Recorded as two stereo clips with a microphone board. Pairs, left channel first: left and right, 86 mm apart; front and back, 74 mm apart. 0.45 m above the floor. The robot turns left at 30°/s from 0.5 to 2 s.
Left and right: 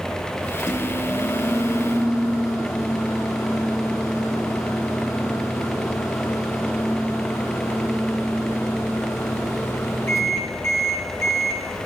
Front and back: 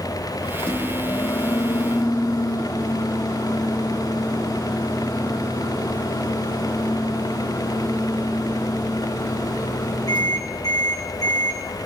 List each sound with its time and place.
0.6 s a microwave: 75° left, 4 m; by 11.6 s 35° left, 4 m